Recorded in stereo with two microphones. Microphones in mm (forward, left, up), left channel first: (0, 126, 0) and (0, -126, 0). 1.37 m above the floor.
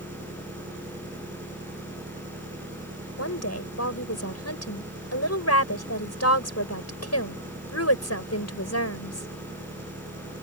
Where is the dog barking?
No dog barking in this recording.